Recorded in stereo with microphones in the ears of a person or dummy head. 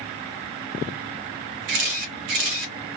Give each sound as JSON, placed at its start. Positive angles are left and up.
{"t": 1.7, "sound": "a camera shutter", "side_deg": -45, "distance_m": 0.9}